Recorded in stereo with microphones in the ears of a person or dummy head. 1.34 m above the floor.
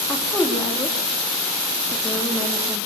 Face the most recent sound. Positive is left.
turn(degrees=10)  # may be behind; listen again after turning